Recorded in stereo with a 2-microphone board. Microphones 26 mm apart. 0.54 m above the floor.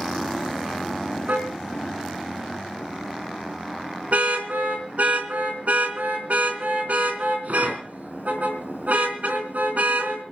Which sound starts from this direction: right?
A car horn, at 1.3 s.